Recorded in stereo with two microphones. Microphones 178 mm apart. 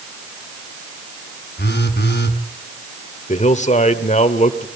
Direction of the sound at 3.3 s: 40° left (ahead or behind).